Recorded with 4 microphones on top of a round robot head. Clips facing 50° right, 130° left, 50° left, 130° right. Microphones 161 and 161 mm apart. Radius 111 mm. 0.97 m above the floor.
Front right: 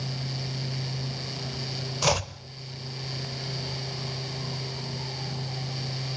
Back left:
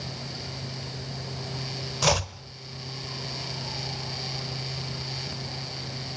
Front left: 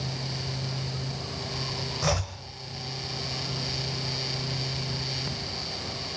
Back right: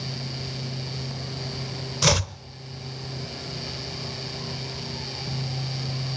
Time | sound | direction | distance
2.0 | chopping | 135° right | 1.0 m